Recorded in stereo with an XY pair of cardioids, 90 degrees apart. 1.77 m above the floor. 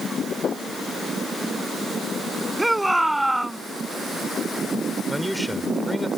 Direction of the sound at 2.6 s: 10° right.